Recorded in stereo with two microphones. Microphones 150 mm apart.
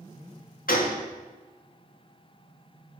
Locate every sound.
0.7 s a gunshot: 70° left (ahead or behind), 2.0 m